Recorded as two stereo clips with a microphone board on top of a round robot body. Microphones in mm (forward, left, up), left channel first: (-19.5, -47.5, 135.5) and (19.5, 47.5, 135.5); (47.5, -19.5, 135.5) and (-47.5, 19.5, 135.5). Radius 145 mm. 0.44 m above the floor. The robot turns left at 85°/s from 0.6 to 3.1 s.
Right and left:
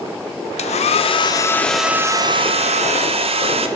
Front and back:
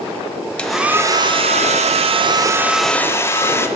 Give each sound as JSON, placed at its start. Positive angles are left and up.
{"t": 0.6, "sound": "a hair dryer", "azimuth_deg": -105, "distance_m": 0.9}